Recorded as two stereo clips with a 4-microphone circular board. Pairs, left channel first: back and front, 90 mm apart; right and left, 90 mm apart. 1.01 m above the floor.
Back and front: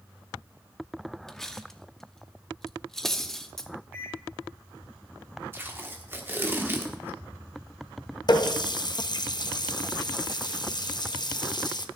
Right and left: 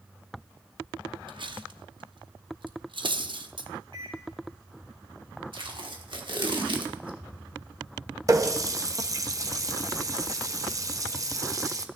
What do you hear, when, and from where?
1.3 s cutlery clinking: 95° left, 0.7 m
3.9 s a microwave: 70° left, 4 m
5.5 s tape being pulled: 65° left, 1.3 m
8.3 s a running tap: 140° left, 0.6 m